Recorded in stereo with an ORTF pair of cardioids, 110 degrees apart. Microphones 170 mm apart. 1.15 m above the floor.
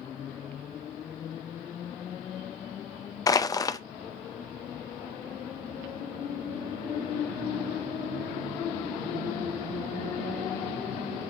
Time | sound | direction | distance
3.3 | crushing | 20° left | 0.6 m